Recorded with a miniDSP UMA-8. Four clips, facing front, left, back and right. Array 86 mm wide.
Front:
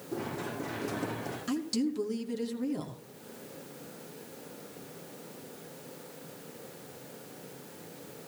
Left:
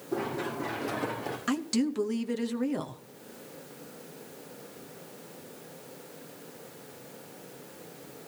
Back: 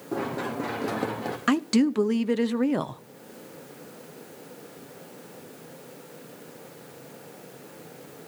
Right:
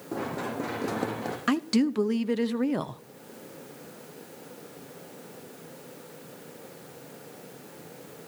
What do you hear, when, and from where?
0.1 s running footsteps: 145° right, 4 m; by 1.4 s 140° right, 3.5 m
1.5 s a woman speaking: 155° right, 0.8 m